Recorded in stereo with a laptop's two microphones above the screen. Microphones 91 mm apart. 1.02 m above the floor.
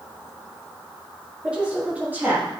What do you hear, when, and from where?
1.4 s a woman speaking: 15° right (ahead or behind), 2 m; by 2.5 s 25° right (ahead or behind), 1.4 m